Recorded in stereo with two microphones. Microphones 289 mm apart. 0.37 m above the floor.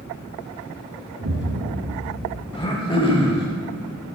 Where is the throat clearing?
20° left (ahead or behind), 1.2 m.